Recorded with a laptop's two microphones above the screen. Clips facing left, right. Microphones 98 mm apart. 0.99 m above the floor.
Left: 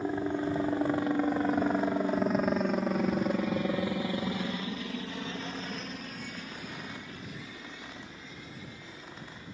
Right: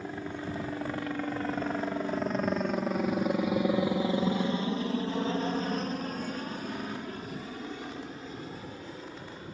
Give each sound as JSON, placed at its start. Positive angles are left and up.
{"t": 0.0, "sound": "a helicopter", "side_deg": 25}